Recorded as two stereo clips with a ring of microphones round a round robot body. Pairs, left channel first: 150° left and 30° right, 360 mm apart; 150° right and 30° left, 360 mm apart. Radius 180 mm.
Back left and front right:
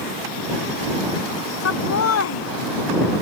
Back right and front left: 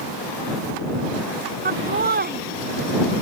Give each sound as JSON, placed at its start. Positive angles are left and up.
{"t": 1.6, "sound": "laughter", "azimuth_deg": 95}